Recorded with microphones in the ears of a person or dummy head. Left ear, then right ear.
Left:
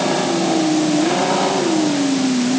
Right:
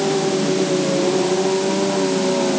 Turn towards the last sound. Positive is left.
No sound to turn to.